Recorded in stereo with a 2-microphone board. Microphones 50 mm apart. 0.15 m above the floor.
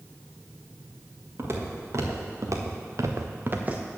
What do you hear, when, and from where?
1.4 s footsteps: 55° right (ahead or behind), 2.5 m; by 3.8 s 25° right (ahead or behind), 1.2 m